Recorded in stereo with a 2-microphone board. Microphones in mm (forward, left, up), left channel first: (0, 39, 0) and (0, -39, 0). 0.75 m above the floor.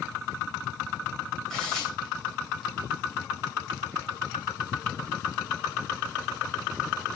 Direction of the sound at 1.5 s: 10° left (ahead or behind).